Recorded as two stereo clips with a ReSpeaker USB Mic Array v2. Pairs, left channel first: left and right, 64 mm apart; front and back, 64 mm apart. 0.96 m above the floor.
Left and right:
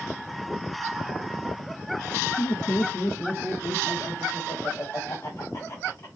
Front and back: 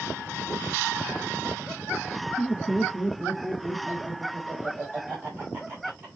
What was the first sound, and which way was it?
Laughter, 75° left.